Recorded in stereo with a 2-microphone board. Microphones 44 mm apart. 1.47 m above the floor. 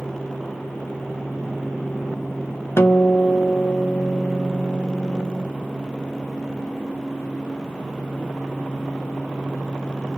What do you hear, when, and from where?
2.8 s a guitar: 65° left (ahead or behind), 0.8 m